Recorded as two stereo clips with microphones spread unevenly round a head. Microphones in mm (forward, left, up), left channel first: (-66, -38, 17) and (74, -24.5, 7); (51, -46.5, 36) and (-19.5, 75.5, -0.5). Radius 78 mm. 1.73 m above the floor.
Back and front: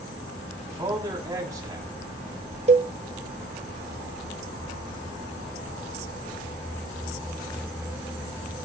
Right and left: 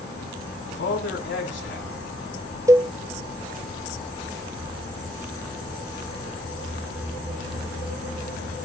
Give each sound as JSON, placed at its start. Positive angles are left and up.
{"t": 0.7, "sound": "a man speaking", "azimuth_deg": -60, "distance_m": 5.5}
{"t": 2.7, "sound": "a cowbell", "azimuth_deg": 45, "distance_m": 0.6}